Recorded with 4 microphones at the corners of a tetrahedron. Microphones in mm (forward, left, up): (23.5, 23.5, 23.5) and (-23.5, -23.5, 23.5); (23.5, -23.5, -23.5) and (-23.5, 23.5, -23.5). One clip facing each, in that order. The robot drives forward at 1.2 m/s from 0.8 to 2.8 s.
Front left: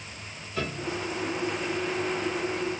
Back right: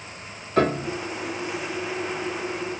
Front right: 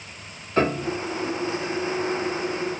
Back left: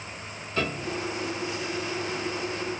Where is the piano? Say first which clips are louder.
Back right 10 dB, front right 7 dB; 100° right; by 1.0 s 105° right.